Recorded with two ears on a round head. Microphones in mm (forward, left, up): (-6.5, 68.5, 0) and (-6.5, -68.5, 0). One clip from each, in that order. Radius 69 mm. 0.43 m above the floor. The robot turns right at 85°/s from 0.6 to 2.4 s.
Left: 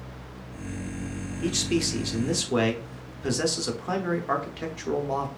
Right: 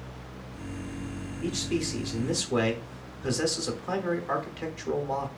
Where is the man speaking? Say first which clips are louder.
Left 4 dB; 25° left (ahead or behind), 0.8 m; by 5.3 s 5° left (ahead or behind), 0.8 m.